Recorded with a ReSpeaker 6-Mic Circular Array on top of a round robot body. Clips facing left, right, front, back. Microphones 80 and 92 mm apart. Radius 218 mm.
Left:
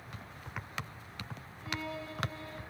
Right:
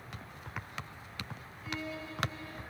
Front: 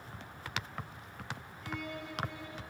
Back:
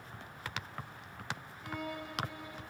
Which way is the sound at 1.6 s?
100° left.